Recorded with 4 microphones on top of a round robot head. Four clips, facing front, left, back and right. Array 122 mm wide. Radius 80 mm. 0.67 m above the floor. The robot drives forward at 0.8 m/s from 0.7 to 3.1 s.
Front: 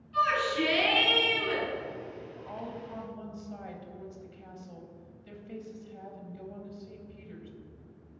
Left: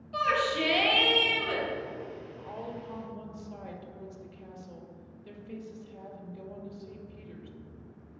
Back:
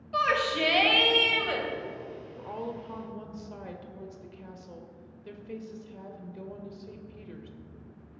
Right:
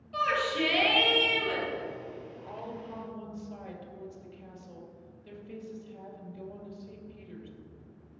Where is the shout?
170° left, 3.5 m.